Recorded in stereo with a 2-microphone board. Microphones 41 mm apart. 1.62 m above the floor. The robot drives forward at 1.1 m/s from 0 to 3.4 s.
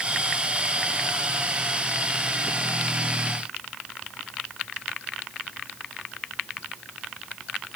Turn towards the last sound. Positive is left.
No sound to turn to.